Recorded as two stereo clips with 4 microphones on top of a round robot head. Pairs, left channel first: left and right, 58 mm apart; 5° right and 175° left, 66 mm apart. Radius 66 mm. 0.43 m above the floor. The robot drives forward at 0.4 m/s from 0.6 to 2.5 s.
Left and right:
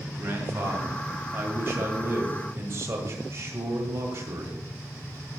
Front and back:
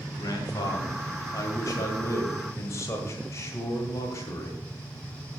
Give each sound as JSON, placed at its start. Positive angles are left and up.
{"t": 0.1, "sound": "a man speaking", "azimuth_deg": -35, "distance_m": 2.5}